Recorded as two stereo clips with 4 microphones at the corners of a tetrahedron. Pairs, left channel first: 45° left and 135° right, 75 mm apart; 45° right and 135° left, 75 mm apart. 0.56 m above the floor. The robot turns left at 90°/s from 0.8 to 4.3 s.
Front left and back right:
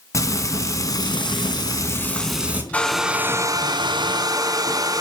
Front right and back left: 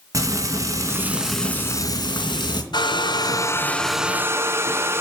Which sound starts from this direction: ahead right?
A hair dryer, at 2.7 s.